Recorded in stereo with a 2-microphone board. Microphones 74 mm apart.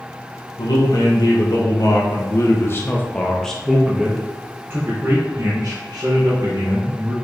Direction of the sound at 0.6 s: 65° left (ahead or behind).